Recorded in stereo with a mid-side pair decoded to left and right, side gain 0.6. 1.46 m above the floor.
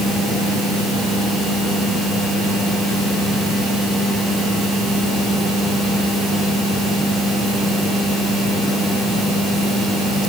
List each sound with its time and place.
Only background noise.